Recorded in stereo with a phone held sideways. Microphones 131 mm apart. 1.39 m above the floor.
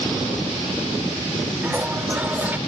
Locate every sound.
1.6 s a toilet flushing: 15° right (ahead or behind), 1.2 m